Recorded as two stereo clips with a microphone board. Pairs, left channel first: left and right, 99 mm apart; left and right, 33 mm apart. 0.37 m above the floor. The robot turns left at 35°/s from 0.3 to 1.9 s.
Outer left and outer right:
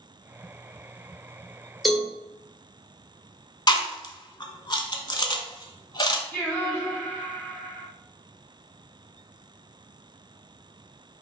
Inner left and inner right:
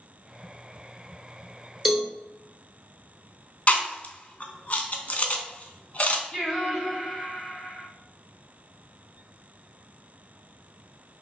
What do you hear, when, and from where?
1.9 s a cowbell: centre (ahead or behind), 1.0 m
3.7 s chewing: 45° left (ahead or behind), 0.6 m
6.3 s singing: 15° left (ahead or behind), 2 m